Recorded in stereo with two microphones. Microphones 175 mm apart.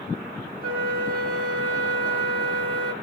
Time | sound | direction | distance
0.6 | a flute | 50° right (ahead or behind) | 2.5 m